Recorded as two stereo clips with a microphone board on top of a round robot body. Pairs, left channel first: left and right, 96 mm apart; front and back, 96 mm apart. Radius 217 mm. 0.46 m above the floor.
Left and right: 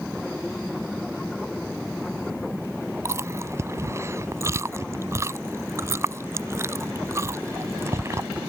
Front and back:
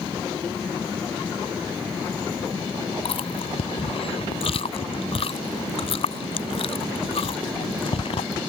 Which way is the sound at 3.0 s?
25° right.